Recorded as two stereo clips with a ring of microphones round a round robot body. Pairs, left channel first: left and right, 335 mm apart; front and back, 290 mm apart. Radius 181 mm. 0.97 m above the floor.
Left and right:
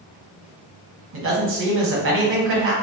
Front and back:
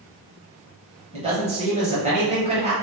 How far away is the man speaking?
About 1.0 m.